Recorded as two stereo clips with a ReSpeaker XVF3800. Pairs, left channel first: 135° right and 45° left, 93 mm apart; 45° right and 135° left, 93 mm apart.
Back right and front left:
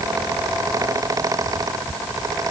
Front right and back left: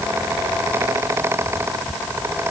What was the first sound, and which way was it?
Only background noise.